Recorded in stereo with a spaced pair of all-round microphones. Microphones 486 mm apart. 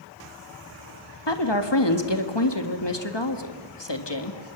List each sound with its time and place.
1.3 s a woman speaking: 60° left (ahead or behind), 1.5 m